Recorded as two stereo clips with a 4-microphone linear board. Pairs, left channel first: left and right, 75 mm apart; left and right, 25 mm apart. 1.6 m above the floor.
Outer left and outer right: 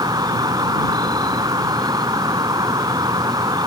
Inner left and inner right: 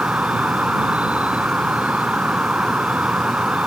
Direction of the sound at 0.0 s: 65° right (ahead or behind).